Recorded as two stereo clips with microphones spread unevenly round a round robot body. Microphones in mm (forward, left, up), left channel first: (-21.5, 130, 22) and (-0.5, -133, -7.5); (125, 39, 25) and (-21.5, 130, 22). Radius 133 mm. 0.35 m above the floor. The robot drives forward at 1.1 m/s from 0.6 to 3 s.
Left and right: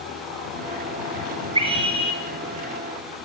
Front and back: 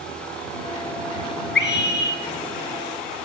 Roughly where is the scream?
Ahead.